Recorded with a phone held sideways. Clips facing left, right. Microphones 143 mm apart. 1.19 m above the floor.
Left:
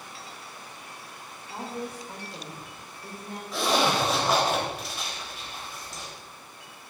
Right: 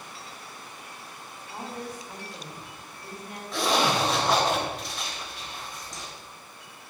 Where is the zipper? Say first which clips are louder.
Even; 5° left (ahead or behind), 3.5 m.